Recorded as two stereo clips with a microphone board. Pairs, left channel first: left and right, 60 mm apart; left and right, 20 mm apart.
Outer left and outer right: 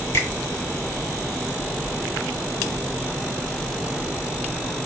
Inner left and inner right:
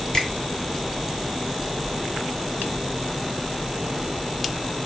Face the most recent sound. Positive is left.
turn(degrees=45)  # may be behind; listen again after turning